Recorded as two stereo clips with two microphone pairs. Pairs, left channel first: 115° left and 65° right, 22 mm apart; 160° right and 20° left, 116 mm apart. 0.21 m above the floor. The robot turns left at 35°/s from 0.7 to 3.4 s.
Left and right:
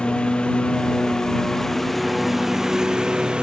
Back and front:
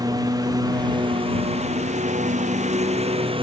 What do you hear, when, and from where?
0.0 s a lawn mower: 80° left; by 3.4 s 20° right